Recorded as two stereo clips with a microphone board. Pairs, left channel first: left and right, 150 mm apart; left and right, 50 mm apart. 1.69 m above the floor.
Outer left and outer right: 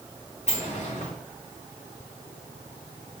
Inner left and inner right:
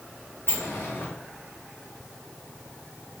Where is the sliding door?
50° left (ahead or behind), 2.5 m.